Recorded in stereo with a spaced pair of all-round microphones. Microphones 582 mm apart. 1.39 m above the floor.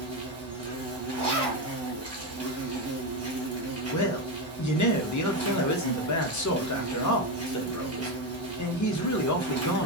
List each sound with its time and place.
0.0 s an insect: 25° right (ahead or behind), 0.7 m
1.1 s a zipper: 10° left (ahead or behind), 1.7 m
3.9 s a man speaking: 30° left (ahead or behind), 0.6 m